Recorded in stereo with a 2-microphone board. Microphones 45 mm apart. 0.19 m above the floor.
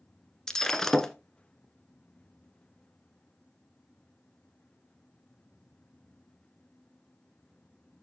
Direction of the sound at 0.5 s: 10° left (ahead or behind).